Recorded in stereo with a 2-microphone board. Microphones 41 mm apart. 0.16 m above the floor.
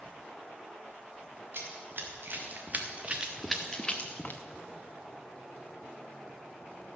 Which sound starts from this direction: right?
Running footsteps, at 1.5 s.